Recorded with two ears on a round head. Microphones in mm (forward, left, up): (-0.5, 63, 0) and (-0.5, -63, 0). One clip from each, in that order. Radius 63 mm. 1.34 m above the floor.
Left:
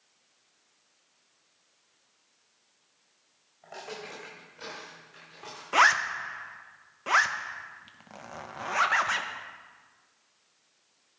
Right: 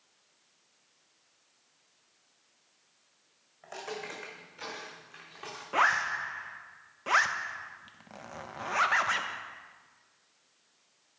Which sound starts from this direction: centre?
A zipper, at 7.1 s.